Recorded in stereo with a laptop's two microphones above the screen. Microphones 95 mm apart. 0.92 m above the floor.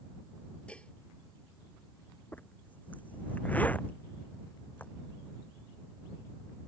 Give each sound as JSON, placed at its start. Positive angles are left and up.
{"t": 0.7, "sound": "dishes clattering", "side_deg": 10}
{"t": 2.3, "sound": "a zipper", "side_deg": 15}